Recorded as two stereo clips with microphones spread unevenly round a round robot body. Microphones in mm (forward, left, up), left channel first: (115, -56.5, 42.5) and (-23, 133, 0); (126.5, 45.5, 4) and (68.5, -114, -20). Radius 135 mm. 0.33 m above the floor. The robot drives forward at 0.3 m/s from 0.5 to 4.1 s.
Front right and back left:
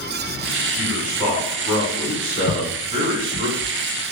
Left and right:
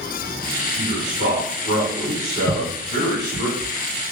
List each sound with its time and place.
0.8 s a man speaking: 165° right, 2.5 m; by 3.5 s 170° right, 3 m
2.5 s footsteps: 130° right, 2.5 m; by 4.1 s 165° right, 3 m